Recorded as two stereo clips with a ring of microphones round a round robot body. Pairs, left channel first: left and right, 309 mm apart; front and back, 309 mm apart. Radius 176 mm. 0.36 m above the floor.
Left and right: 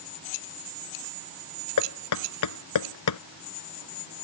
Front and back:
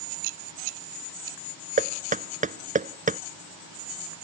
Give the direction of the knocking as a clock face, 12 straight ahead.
8 o'clock.